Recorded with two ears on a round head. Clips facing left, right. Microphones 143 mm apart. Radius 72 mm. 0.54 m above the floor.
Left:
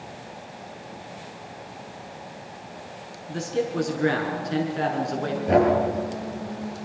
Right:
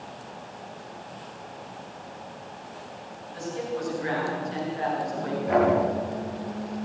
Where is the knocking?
40° left (ahead or behind), 8.5 m.